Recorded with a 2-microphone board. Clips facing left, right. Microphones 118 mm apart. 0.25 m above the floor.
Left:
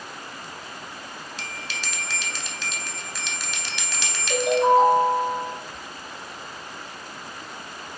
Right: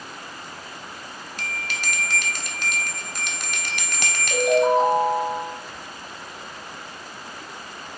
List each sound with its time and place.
1.4 s a bell: 50° right (ahead or behind), 0.5 m
4.3 s a ringtone: 70° left (ahead or behind), 1.2 m